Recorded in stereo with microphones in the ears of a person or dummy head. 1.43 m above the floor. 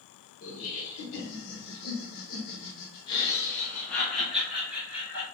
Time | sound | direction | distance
0.4 | laughter | 75° left (ahead or behind) | 1.6 m